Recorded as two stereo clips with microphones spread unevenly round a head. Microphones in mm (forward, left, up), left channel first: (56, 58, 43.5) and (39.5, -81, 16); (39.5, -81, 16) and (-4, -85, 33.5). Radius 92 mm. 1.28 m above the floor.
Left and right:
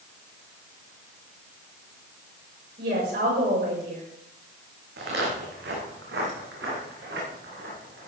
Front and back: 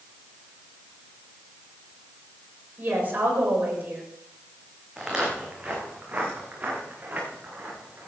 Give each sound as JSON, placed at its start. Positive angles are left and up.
{"t": 2.8, "sound": "a woman speaking", "azimuth_deg": -130, "distance_m": 7.0}
{"t": 5.0, "sound": "footsteps", "azimuth_deg": -105, "distance_m": 4.5}